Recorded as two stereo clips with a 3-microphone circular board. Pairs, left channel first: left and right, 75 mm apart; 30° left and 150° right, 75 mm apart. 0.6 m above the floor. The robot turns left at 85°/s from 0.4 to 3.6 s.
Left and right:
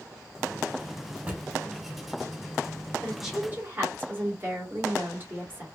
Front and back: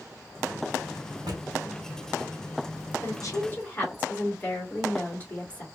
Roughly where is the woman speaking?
Ahead.